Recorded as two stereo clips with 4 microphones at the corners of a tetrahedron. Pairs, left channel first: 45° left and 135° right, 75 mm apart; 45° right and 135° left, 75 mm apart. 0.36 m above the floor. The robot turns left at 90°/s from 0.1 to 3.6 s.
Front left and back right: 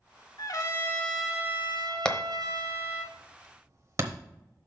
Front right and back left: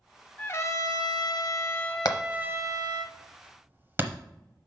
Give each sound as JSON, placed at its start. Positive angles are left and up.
{"t": 0.4, "sound": "a trumpet", "azimuth_deg": 25, "distance_m": 0.9}
{"t": 2.0, "sound": "hammering", "azimuth_deg": -30, "distance_m": 0.8}